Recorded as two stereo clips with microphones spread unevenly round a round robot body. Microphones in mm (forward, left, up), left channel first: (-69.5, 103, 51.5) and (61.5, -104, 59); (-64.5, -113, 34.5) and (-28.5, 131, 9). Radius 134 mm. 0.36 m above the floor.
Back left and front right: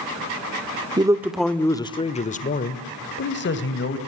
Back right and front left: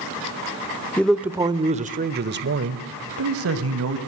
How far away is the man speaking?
About 1.0 m.